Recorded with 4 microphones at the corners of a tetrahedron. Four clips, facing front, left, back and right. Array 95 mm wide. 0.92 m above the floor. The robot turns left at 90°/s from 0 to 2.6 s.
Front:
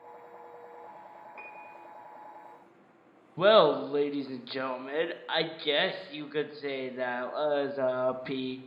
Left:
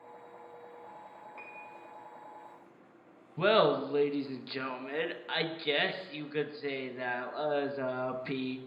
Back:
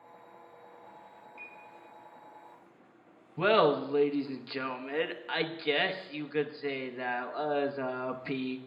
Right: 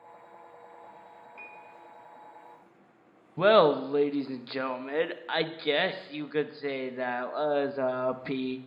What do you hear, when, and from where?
1.4 s a piano: 30° left, 3 m; by 1.8 s 5° right, 3 m
3.4 s laughter: 50° right, 0.7 m